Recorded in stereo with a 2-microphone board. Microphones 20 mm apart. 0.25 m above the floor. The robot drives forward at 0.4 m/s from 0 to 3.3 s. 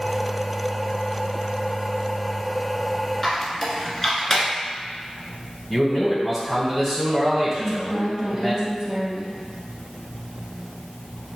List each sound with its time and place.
3.2 s a squeak: 10° left (ahead or behind), 1.1 m
5.7 s a man speaking: 10° left (ahead or behind), 1.3 m
7.5 s a woman speaking: 35° right (ahead or behind), 1.8 m